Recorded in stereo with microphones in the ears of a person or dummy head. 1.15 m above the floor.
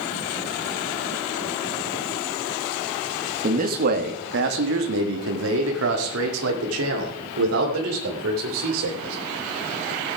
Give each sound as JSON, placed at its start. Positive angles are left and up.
{"t": 3.4, "sound": "a man speaking", "side_deg": -45, "distance_m": 1.5}